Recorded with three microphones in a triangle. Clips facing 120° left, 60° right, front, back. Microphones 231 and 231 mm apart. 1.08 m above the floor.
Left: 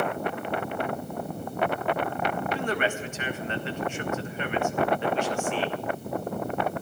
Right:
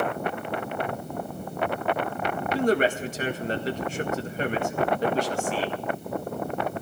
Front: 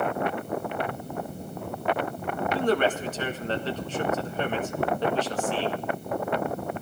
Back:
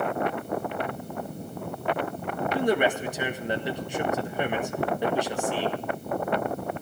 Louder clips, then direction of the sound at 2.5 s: Right 6 dB, even; 105° right.